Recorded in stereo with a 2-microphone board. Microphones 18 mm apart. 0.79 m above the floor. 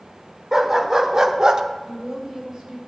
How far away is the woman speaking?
About 2.5 m.